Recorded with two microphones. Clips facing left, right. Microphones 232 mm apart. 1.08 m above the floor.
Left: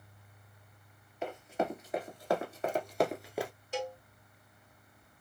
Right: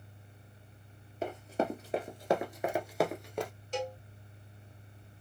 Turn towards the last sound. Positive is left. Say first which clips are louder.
# right 1 dB
turn(degrees=10)  # may be behind; listen again after turning